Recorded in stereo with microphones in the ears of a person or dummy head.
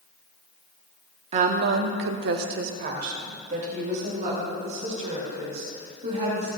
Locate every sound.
1.3 s a woman speaking: 35° right (ahead or behind), 0.9 m; by 6.5 s 45° right (ahead or behind), 6.5 m